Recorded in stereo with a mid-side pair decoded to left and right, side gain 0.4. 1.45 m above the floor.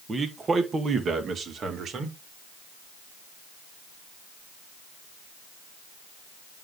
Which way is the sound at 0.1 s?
35° right.